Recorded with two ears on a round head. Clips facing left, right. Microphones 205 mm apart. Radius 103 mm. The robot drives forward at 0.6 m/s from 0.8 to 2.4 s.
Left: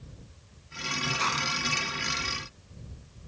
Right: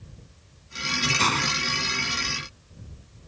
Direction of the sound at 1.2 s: 60° right (ahead or behind).